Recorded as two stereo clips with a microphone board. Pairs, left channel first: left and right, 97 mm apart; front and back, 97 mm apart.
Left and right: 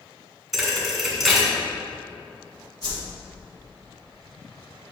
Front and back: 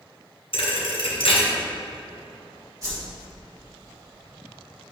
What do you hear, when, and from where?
0.5 s a thud: straight ahead, 1.8 m
2.8 s a whoosh: 130° left, 2.5 m